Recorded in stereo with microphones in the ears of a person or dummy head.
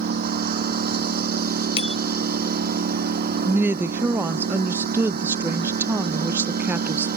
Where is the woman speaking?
15° right (ahead or behind).